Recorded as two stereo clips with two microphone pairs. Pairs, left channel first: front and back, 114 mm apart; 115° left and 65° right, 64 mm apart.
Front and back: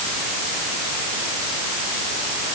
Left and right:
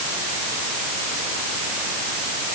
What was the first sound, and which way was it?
Only background noise.